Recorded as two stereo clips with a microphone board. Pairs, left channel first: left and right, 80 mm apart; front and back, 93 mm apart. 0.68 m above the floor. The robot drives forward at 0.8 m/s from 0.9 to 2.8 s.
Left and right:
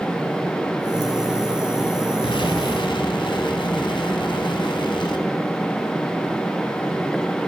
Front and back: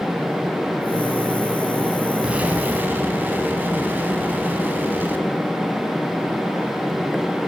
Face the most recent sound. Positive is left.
turn(degrees=110)